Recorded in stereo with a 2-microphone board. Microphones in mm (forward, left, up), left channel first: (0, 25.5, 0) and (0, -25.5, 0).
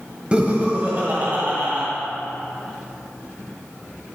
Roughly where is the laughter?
Right.